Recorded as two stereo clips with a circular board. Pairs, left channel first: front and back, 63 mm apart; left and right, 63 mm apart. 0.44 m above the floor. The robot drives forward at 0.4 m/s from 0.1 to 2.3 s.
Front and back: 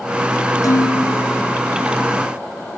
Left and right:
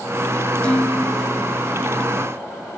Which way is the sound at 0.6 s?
20° left.